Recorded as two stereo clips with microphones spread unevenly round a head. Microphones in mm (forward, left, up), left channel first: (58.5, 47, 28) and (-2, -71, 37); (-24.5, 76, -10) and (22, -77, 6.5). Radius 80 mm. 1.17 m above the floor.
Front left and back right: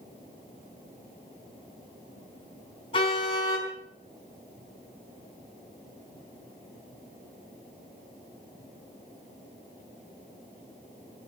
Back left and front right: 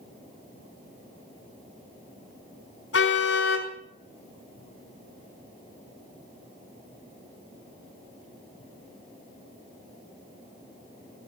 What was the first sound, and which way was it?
A car horn, 125° left.